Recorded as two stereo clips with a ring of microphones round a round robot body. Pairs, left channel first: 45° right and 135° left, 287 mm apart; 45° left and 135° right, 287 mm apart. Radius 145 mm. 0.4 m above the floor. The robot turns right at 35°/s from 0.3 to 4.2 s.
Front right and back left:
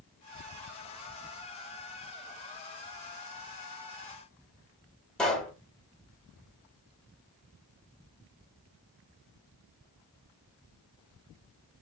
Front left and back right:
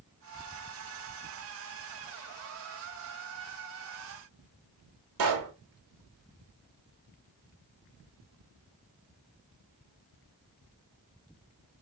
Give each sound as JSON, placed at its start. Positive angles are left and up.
{"t": 5.2, "sound": "a pop", "azimuth_deg": -135, "distance_m": 1.1}